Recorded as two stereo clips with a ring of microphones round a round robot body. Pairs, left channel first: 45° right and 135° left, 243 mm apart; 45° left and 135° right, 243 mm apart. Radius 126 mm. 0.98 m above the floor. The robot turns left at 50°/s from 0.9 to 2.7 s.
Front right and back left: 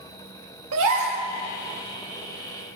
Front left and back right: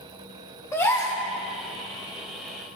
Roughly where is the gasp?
Behind left.